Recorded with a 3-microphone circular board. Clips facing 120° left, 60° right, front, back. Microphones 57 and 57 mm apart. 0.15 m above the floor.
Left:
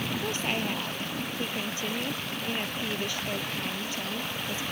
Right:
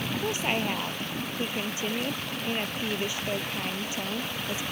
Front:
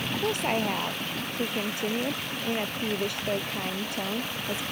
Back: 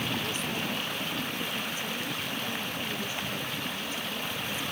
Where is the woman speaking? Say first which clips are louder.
Right 4 dB, front 6 dB; 10° left.